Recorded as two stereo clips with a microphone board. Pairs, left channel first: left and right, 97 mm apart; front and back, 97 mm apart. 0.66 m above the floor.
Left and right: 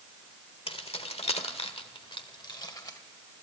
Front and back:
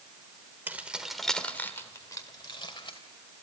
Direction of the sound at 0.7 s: 110° left.